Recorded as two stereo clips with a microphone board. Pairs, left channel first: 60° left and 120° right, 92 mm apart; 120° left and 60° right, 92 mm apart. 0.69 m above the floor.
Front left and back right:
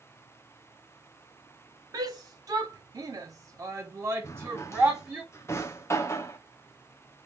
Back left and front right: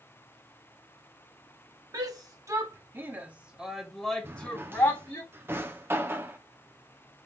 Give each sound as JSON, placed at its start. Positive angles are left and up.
{"t": 1.9, "sound": "a shout", "azimuth_deg": -85, "distance_m": 1.4}
{"t": 4.2, "sound": "a drawer", "azimuth_deg": 5, "distance_m": 0.6}